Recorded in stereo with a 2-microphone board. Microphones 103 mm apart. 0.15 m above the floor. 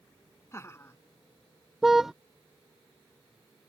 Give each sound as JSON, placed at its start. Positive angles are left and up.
{"t": 0.5, "sound": "laughter", "side_deg": 25}
{"t": 1.8, "sound": "a car horn", "side_deg": -5}